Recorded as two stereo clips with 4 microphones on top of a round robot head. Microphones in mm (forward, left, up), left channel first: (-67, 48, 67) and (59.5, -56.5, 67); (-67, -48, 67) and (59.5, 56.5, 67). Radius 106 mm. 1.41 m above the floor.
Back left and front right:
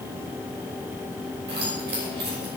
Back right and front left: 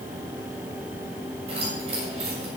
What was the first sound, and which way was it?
Keys jangling, 15° right.